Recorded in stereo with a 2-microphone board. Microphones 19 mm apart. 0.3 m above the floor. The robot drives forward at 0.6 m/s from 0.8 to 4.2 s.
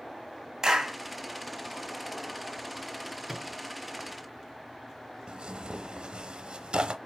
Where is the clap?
35° right (ahead or behind), 1.4 m.